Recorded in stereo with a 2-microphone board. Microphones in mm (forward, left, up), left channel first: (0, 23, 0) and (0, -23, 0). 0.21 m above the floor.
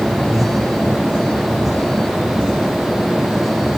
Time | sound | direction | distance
0.3 | breathing | 10° right (ahead or behind) | ?